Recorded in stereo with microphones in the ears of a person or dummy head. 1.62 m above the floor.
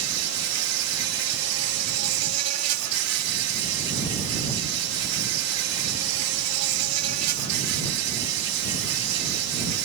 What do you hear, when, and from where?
0.0 s an insect: 80° right